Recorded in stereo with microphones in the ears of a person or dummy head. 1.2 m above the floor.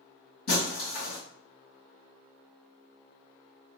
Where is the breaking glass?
45° left (ahead or behind), 2.0 m.